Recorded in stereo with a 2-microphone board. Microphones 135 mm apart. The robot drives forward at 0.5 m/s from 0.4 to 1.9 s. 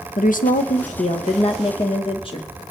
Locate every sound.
0.2 s a woman speaking: 80° left, 0.8 m; by 2.5 s 40° left (ahead or behind), 1.1 m